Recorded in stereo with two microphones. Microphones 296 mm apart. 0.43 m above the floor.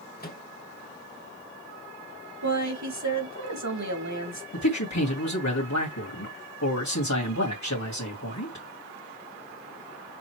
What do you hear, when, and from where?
0.2 s a microwave: 30° left (ahead or behind), 1.8 m
2.4 s a woman speaking: 70° right (ahead or behind), 3.5 m
4.5 s a man speaking: 65° left (ahead or behind), 2.5 m